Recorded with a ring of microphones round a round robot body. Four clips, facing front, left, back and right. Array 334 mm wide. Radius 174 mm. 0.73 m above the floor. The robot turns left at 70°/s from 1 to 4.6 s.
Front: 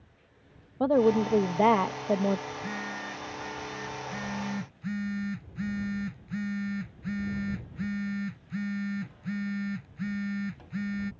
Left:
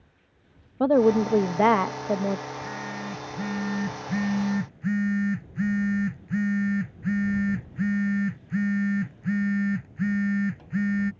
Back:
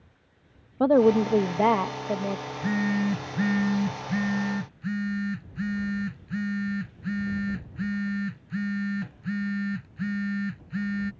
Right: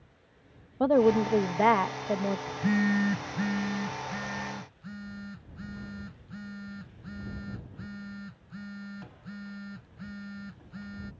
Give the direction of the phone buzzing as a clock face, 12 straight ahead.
4 o'clock.